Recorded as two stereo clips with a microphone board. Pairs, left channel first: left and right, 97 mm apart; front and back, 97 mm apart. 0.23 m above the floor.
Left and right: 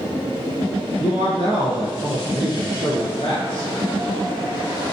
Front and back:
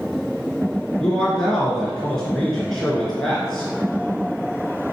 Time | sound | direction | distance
1.0 | a man speaking | 85° left | 2.5 m